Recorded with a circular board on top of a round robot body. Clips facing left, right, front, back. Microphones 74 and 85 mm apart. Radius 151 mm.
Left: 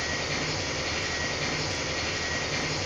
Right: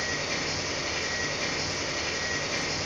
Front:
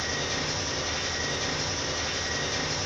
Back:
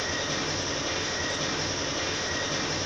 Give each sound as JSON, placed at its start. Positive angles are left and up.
{"t": 0.0, "sound": "an engine running", "azimuth_deg": -165, "distance_m": 0.9}